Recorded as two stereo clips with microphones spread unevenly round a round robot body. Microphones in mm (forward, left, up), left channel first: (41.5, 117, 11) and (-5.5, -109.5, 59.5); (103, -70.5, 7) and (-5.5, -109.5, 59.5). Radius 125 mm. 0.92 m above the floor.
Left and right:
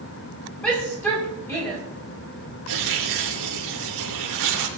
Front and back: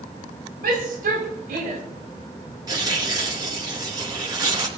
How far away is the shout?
About 5.5 m.